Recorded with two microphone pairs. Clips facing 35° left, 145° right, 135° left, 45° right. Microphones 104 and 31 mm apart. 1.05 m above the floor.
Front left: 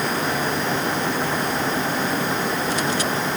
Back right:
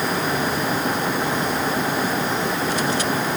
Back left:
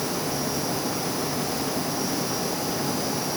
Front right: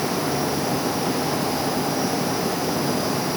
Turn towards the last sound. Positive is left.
No sound to turn to.